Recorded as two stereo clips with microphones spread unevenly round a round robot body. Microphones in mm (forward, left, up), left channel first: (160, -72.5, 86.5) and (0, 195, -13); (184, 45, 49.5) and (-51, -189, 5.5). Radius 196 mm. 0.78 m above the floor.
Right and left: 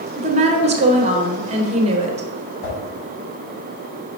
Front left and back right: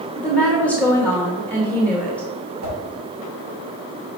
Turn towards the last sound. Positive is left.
turn(degrees=-100)